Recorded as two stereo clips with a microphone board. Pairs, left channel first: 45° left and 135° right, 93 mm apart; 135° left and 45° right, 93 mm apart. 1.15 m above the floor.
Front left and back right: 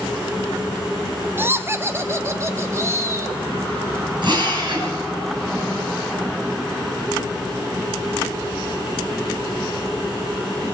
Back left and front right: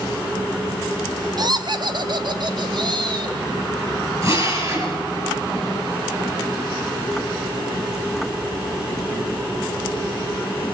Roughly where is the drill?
Right.